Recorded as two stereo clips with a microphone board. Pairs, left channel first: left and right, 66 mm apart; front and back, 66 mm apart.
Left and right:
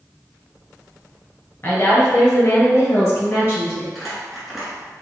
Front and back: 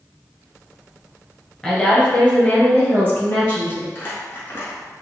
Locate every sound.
1.6 s a woman speaking: 70° left, 1.3 m; by 3.9 s 45° left, 2.5 m
4.0 s crumpling: 5° right, 1.3 m